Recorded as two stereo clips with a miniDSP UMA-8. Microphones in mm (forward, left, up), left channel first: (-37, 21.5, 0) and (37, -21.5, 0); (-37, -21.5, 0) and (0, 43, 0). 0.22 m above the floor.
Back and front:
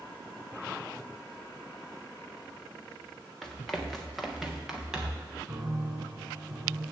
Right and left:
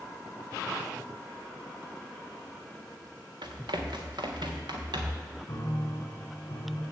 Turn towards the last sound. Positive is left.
turn(degrees=-85)